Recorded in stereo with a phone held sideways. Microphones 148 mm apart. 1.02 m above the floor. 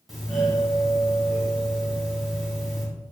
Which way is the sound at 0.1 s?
Centre (ahead or behind).